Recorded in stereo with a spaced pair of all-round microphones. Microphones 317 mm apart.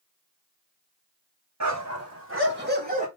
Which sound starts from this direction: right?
A dog barking, at 1.6 s.